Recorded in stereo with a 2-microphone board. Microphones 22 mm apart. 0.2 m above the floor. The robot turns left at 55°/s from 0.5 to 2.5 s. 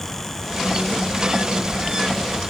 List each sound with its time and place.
Only background noise.